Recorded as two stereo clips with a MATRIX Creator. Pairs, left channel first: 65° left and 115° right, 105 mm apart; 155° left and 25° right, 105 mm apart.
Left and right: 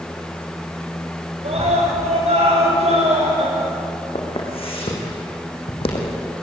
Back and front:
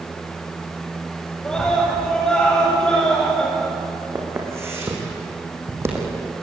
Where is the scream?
120° right, 9.5 m.